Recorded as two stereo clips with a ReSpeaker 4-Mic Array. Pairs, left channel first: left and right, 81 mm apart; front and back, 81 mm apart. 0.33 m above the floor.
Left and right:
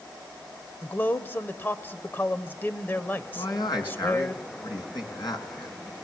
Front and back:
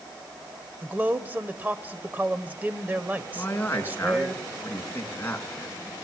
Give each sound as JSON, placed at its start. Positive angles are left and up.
{"t": 0.8, "sound": "a man speaking", "azimuth_deg": 130, "distance_m": 1.0}
{"t": 3.4, "sound": "a man speaking", "azimuth_deg": 65, "distance_m": 3.5}